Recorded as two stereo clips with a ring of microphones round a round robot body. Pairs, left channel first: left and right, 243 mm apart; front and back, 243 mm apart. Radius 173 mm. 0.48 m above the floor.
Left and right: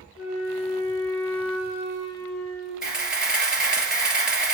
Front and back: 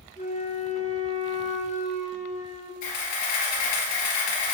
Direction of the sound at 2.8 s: 5° right.